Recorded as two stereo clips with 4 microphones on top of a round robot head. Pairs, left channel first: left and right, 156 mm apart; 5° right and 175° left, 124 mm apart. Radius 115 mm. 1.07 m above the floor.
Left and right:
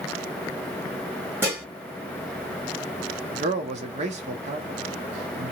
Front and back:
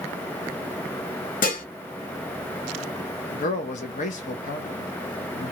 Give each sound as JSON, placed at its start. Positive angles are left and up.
{"t": 1.4, "sound": "dishes clattering", "azimuth_deg": -10, "distance_m": 1.4}
{"t": 3.3, "sound": "a man speaking", "azimuth_deg": -35, "distance_m": 0.7}